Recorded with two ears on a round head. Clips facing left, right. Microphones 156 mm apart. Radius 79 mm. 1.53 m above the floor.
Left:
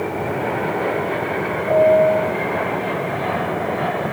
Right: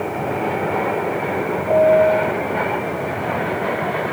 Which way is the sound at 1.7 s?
Centre (ahead or behind).